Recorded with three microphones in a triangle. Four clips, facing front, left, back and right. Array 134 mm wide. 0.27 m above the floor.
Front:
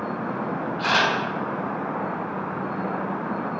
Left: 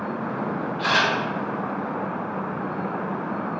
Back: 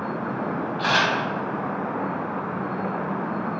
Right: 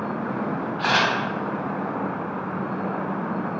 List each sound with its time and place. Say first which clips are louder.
0.8 s a camera shutter: right 1 dB, even; 120° right, 1.5 m